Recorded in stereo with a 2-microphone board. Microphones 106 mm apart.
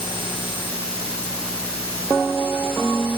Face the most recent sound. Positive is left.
No sound to turn to.